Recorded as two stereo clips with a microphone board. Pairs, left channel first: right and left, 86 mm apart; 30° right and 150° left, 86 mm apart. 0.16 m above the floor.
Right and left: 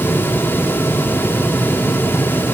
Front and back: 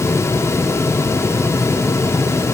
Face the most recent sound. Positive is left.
No sound to turn to.